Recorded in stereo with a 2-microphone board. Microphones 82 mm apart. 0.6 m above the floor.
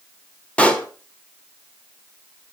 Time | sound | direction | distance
0.6 | a pop | 15° left (ahead or behind) | 1.2 m